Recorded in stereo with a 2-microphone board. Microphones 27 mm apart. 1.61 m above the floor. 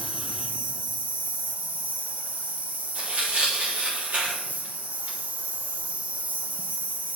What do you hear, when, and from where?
0.0 s an insect: 75° right (ahead or behind), 1.1 m
3.0 s tearing paper: 60° right (ahead or behind), 3.5 m